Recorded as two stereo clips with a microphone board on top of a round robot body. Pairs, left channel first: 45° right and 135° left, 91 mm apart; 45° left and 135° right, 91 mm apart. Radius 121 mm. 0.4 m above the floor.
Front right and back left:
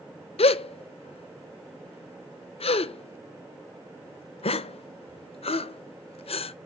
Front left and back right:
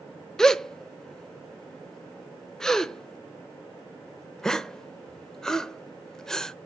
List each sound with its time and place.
0.4 s a gasp: 40° right, 0.6 m